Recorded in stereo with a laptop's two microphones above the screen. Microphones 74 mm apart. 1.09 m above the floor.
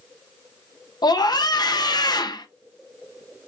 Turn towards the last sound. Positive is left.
turn(degrees=65)  # may be behind; listen again after turning